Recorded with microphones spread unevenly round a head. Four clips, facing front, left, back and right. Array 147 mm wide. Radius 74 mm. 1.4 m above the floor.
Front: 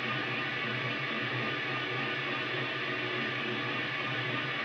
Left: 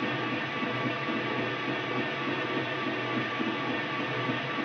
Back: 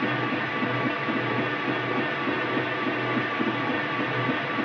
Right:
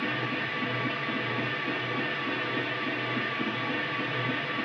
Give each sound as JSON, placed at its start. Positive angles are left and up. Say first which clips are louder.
{"t": 0.0, "sound": "a machine running", "louder": "even, back 9 dB", "azimuth_deg": 175, "distance_m": 0.7}